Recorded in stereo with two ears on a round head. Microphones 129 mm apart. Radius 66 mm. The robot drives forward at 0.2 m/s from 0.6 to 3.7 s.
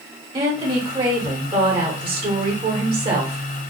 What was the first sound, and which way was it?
A woman speaking, 30° right (ahead or behind).